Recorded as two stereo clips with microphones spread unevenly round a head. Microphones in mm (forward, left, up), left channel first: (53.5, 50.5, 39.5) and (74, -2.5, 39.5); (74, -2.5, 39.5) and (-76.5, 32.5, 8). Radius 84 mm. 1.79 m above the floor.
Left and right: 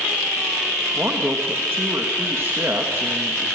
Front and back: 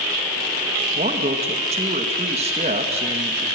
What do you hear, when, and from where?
0.9 s a man speaking: 140° right, 2 m